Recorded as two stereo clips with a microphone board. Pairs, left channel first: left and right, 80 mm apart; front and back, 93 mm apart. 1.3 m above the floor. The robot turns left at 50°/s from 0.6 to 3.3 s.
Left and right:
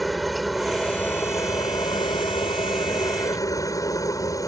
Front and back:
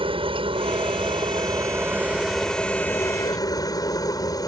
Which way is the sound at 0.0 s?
Straight behind.